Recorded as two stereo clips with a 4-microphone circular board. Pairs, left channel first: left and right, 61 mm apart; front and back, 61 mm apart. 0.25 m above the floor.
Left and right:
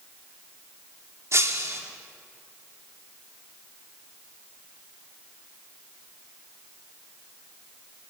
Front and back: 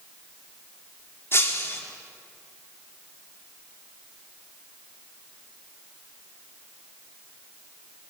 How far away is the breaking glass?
About 4 m.